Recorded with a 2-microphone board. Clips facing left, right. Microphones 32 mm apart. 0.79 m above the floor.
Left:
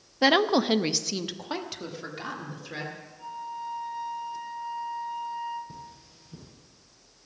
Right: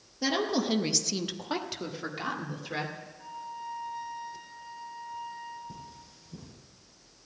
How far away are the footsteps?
I don't hear footsteps.